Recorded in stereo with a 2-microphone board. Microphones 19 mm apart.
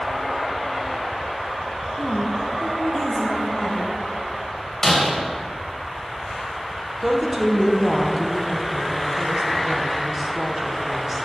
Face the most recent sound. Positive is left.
turn(degrees=-20)  # may be behind; listen again after turning